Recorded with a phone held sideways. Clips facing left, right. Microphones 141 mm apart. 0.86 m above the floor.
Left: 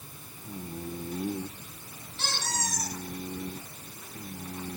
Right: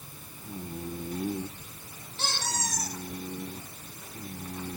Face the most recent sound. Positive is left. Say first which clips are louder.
# right 1 dB
turn(degrees=-35)  # may be behind; listen again after turning